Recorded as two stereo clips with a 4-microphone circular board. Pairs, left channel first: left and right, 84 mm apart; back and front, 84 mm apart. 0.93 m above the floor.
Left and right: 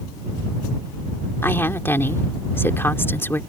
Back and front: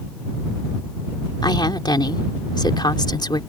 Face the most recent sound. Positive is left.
turn(degrees=150)